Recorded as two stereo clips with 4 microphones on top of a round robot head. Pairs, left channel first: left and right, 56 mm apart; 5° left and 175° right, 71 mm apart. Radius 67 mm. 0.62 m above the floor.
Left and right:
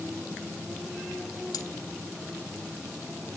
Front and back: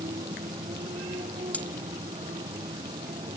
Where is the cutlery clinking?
75° left.